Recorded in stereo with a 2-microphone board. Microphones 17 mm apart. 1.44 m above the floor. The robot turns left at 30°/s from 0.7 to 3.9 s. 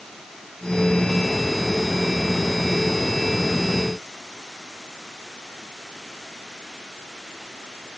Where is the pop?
I don't hear a pop.